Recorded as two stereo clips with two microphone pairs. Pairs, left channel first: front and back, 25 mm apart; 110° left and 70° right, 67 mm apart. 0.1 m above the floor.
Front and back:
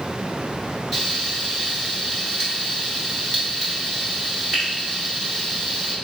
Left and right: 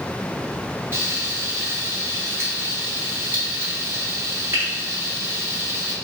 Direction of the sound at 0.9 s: 80° right.